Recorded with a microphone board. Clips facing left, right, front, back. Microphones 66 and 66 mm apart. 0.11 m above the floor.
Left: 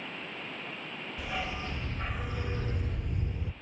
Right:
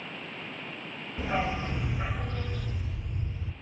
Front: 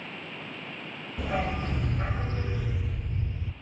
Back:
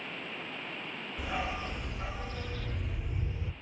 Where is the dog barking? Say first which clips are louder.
Right 7 dB, front 6 dB; 35° right, 1.1 m; by 3.5 s 110° left, 0.9 m.